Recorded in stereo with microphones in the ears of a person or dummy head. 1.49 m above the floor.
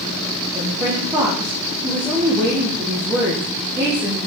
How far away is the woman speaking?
About 1.2 m.